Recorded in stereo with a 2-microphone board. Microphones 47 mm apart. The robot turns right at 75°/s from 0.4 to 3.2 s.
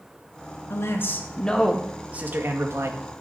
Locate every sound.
0.7 s a man speaking: 100° left, 2 m; by 2.9 s 90° right, 2 m